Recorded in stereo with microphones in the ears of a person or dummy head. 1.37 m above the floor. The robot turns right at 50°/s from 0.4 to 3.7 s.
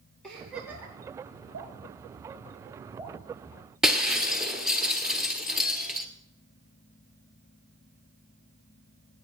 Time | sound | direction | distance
0.2 | a giggle | 5° left (ahead or behind) | 9 m
1.5 | dripping | 65° right (ahead or behind) | 4 m
3.8 | breaking glass | 5° right (ahead or behind) | 1.4 m